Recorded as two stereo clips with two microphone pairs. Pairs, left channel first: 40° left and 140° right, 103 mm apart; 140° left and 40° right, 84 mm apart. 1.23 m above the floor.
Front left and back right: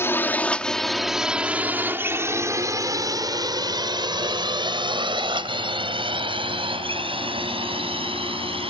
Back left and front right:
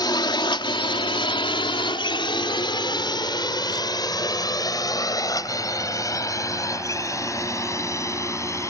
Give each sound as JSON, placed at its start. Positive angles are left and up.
{"t": 0.0, "sound": "a drone", "azimuth_deg": 105}